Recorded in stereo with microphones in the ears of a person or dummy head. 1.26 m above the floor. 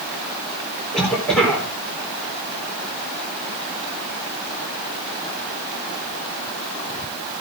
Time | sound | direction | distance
0.9 | a cough | 5° left (ahead or behind) | 4 m